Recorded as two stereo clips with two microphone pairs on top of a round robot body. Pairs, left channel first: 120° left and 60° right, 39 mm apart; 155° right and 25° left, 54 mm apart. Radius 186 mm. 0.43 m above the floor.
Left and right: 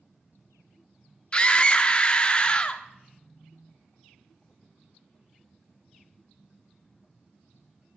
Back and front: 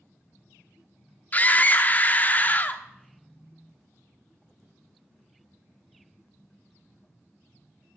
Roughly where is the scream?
Behind.